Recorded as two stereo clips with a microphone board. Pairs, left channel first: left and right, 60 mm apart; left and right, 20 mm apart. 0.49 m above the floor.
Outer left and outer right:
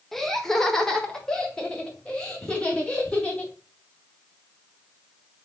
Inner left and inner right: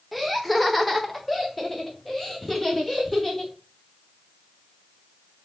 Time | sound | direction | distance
0.1 | laughter | 5° left (ahead or behind) | 1.1 m